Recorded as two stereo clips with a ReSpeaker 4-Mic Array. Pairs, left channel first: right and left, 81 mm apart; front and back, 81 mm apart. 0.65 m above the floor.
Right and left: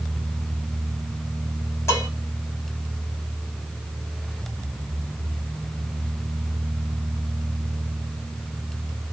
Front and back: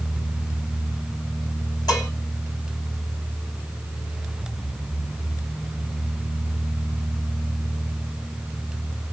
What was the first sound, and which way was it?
Dishes clattering, 35° right.